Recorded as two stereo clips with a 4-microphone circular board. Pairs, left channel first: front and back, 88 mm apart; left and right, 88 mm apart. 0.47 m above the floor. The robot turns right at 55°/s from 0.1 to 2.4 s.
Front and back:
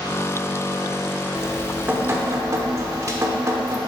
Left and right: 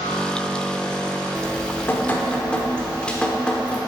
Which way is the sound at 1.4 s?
100° left.